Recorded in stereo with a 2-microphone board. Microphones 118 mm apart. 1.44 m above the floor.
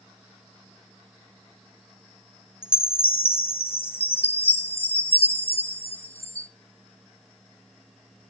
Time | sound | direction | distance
2.6 | a chime | 55° left (ahead or behind) | 1.4 m